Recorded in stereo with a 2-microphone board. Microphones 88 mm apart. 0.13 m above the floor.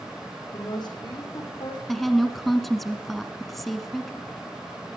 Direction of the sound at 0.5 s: 55° left (ahead or behind).